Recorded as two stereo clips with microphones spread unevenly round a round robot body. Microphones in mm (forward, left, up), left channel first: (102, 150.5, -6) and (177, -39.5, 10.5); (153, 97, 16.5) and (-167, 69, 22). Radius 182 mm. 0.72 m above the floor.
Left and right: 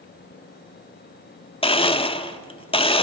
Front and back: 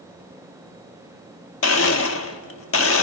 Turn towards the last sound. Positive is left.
turn(degrees=50)